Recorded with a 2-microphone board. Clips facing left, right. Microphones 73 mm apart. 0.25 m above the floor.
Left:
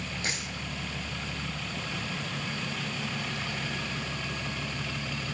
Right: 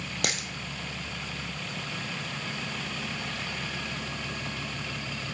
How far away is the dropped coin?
About 1.1 m.